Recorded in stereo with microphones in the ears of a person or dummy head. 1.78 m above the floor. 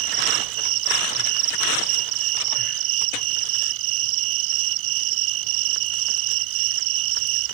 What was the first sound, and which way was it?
An insect, 80° right.